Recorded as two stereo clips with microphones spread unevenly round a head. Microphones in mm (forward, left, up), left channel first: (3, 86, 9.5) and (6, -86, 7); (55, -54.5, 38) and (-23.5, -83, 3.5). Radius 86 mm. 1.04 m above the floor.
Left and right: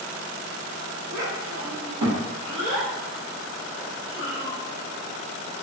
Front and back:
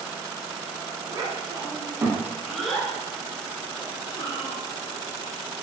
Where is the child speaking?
120° right, 1.1 m; by 4.6 s 25° right, 1.5 m.